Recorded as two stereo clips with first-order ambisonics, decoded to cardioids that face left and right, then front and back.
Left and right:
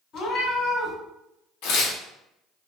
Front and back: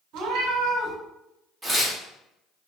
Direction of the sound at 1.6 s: 100° left.